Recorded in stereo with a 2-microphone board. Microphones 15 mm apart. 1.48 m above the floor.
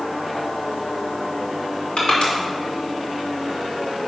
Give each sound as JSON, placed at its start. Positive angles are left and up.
{"t": 2.0, "sound": "crushing", "side_deg": 70, "distance_m": 2.5}